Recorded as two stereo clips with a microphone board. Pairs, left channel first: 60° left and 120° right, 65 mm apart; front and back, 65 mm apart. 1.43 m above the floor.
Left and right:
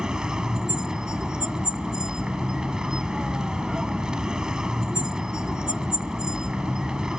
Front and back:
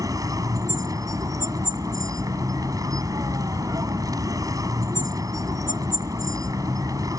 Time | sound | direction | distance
0.0 | a vehicle | 160° left | ?